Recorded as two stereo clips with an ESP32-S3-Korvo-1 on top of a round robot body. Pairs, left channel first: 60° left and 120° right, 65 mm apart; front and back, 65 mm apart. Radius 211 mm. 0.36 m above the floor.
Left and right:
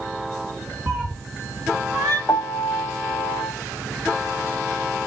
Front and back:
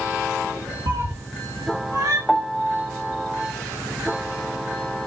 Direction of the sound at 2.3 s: 85° left.